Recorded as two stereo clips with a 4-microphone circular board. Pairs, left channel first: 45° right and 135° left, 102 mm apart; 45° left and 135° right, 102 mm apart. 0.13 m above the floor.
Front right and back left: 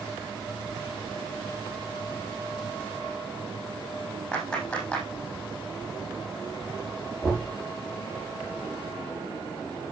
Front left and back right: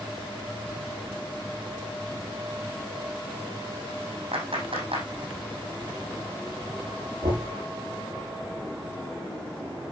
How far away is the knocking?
About 7 m.